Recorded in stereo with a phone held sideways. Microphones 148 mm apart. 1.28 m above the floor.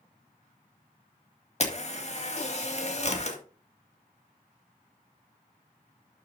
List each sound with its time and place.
1.6 s a camera shutter: 45° left (ahead or behind), 2 m